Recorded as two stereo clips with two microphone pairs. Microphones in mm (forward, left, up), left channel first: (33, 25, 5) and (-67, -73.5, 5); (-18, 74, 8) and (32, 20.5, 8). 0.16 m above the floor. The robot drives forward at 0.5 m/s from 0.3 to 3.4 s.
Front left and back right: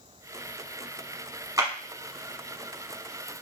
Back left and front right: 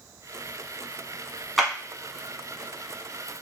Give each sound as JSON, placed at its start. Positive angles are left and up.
{"t": 1.6, "sound": "a clap", "azimuth_deg": -140, "distance_m": 0.9}